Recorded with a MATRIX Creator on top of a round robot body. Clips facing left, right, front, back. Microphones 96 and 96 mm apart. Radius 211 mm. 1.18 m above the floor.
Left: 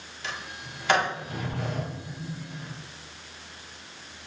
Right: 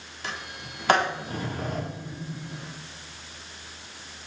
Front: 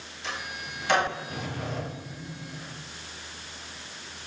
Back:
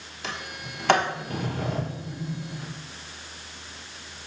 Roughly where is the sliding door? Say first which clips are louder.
Right 1 dB, even; behind right.